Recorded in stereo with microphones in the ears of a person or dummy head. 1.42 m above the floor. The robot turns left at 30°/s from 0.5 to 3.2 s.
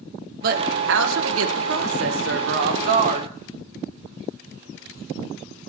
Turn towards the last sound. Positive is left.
turn(degrees=-135)